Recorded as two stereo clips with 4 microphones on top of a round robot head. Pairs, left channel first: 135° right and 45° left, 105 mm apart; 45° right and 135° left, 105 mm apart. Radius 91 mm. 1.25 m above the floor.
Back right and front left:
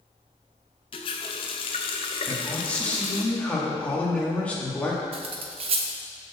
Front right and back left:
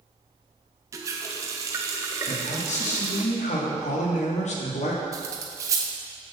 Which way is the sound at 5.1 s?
75° left.